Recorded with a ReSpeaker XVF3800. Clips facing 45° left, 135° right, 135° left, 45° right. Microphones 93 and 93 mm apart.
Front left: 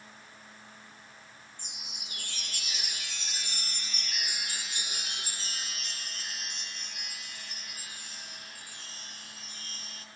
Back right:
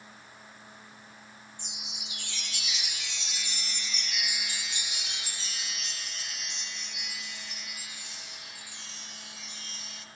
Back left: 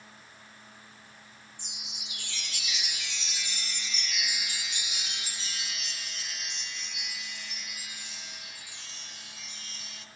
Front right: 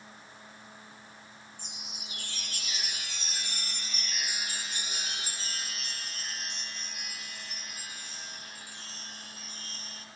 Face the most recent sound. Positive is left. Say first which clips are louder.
# back right 2 dB, front right 2 dB
turn(degrees=0)